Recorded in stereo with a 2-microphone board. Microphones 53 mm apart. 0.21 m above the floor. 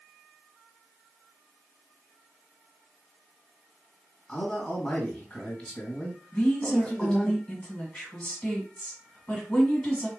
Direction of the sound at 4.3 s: 25° left (ahead or behind).